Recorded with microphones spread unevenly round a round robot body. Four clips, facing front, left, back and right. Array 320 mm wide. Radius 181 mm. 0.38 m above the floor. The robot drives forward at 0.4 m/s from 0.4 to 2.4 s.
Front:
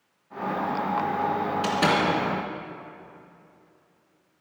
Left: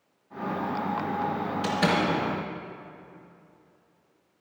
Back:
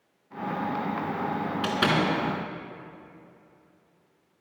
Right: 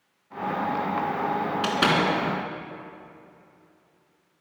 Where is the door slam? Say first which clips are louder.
Right 1 dB, front 1 dB; 100° right, 3 m; by 2.1 s 105° right, 3 m.